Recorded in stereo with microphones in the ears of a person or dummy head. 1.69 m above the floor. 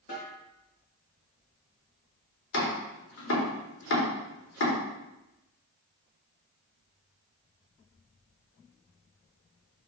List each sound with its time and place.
0.1 s a snare drum: 40° left (ahead or behind), 4 m
2.5 s chopping: 80° left, 3.5 m